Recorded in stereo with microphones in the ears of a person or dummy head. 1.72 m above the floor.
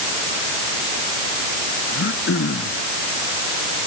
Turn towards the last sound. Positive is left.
turn(degrees=60)  # may be behind; listen again after turning